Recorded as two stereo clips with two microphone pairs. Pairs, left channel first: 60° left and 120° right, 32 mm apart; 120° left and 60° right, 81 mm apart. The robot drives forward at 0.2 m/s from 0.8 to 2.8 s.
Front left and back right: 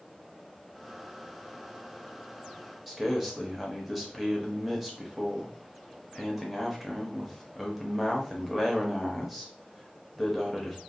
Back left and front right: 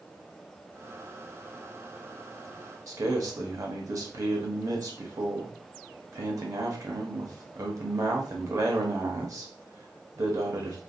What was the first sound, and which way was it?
A man speaking, 40° right.